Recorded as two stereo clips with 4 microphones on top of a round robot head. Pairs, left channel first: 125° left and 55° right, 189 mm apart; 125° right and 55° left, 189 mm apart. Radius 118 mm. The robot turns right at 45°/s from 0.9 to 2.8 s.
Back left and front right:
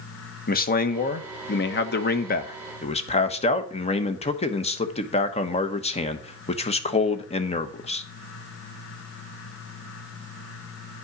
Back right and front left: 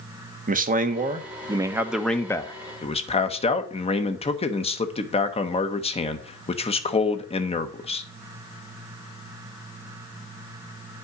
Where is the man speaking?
95° left, 1.2 m; by 8.0 s straight behind, 1.2 m.